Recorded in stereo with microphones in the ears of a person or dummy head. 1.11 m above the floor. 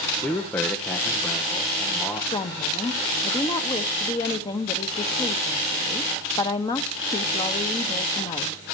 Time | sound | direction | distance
0.2 | a man speaking | 15° left (ahead or behind) | 0.9 m
2.3 | a woman speaking | 25° left (ahead or behind) | 1.0 m